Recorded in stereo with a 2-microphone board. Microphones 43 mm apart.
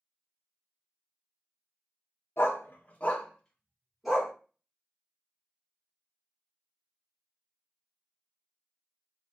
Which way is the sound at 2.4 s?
65° left (ahead or behind).